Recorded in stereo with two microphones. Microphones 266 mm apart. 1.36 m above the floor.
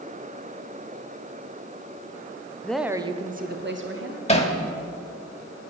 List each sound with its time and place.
2.6 s a woman speaking: 5° left (ahead or behind), 0.5 m; by 4.2 s 55° right (ahead or behind), 1.0 m
4.3 s hammering: 25° left (ahead or behind), 1.2 m